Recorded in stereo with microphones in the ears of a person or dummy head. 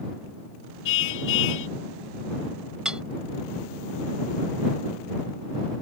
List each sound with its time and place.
0.8 s a car horn: 70° left (ahead or behind)
2.9 s cutlery clinking: 5° right (ahead or behind)